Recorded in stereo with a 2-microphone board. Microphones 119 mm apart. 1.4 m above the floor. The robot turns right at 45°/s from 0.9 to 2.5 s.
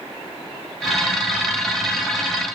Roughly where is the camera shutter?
No camera shutter in this recording.